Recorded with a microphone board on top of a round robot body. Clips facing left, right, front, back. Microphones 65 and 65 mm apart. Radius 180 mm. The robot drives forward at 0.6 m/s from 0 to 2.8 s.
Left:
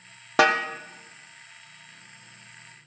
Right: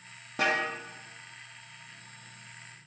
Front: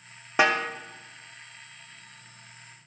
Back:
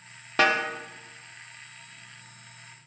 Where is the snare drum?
75° left, 0.6 m; by 0.7 s 95° left, 0.5 m.